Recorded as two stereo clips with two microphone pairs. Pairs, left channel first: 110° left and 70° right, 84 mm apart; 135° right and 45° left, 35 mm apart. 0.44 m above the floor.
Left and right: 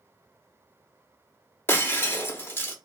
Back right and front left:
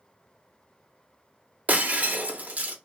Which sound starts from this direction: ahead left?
Breaking glass, at 1.7 s.